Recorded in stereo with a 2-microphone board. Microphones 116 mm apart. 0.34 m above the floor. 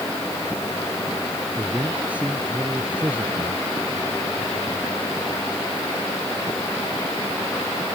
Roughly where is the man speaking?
Centre.